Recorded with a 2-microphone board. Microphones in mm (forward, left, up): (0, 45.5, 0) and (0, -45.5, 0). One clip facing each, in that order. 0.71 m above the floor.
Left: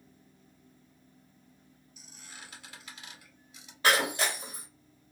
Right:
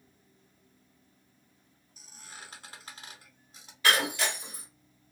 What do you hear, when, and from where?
2.0 s a squeak: 35° right (ahead or behind), 1.2 m
3.8 s breaking glass: 35° left (ahead or behind), 1.8 m